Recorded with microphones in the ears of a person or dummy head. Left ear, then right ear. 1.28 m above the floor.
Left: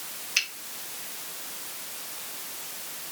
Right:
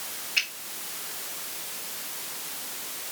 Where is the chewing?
I don't hear chewing.